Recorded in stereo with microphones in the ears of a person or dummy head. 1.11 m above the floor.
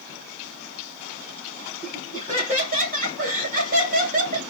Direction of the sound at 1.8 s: 35° right (ahead or behind).